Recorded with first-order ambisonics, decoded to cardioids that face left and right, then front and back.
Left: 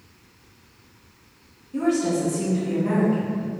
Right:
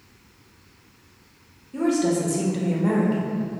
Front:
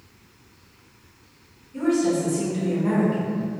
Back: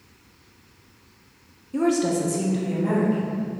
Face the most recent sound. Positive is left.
turn(degrees=-90)